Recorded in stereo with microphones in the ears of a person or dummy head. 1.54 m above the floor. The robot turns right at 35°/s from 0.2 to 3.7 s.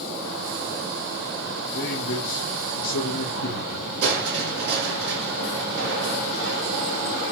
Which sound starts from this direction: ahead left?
A man speaking, at 1.7 s.